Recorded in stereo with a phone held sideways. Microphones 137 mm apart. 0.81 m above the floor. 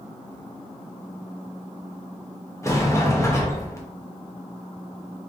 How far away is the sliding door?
About 0.6 m.